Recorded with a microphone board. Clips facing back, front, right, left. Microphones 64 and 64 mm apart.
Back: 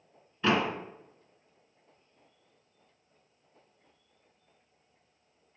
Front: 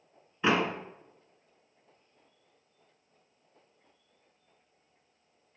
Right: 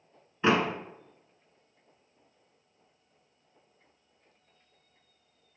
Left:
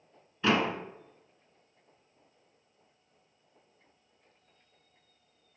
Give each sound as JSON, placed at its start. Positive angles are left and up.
{"t": 0.4, "sound": "a door slam", "azimuth_deg": -55, "distance_m": 1.1}